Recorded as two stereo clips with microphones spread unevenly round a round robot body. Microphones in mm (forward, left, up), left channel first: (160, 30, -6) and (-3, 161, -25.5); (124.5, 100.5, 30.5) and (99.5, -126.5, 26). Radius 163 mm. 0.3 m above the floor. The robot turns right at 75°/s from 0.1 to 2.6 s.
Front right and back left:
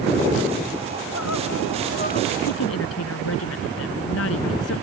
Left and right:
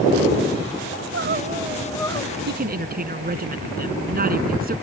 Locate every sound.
0.9 s crying: 80° right; by 2.4 s 30° left
2.5 s a woman speaking: 60° right; by 4.8 s 50° right